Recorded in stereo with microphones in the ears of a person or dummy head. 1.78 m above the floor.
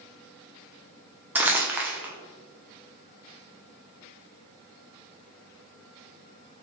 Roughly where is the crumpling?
Centre.